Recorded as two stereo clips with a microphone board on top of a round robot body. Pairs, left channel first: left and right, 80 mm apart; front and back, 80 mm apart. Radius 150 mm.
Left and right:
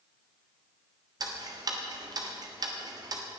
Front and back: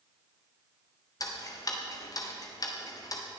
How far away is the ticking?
About 1.4 m.